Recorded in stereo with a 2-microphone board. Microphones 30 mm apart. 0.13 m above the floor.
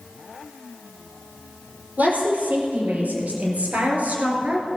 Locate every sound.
2.0 s a woman speaking: 70° right (ahead or behind), 4.5 m; by 4.7 s 50° right (ahead or behind), 2.5 m